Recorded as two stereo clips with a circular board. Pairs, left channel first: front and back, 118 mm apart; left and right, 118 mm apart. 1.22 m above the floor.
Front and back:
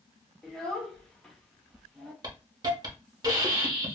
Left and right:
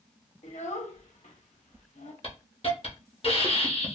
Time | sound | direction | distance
0.4 | a child speaking | 85° left | 0.9 m
2.2 | a hiss | 125° left | 0.8 m